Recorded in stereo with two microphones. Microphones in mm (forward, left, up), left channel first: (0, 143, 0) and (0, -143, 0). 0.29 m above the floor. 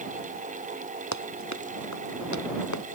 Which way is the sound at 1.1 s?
70° left (ahead or behind).